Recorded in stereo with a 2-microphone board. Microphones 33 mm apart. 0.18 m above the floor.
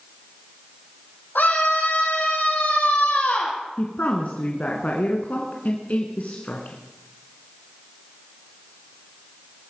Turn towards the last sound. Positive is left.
turn(degrees=50)  # may be behind; listen again after turning